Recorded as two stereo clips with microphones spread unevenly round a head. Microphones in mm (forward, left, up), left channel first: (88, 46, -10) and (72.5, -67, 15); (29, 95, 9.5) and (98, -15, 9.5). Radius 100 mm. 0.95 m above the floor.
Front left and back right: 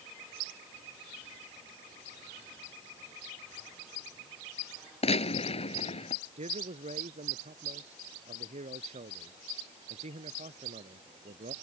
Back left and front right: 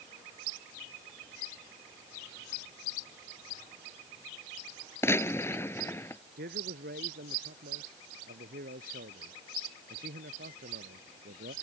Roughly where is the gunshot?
Ahead left.